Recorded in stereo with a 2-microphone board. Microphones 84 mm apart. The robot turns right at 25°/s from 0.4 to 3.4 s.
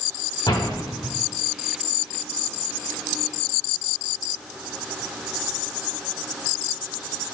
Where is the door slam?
55° left (ahead or behind), 1.3 m; by 1.1 s 45° left (ahead or behind), 1.3 m.